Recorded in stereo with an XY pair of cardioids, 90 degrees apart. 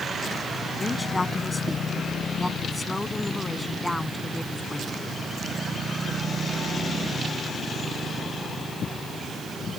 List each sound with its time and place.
0.8 s a woman speaking: 25° left; by 4.9 s 10° left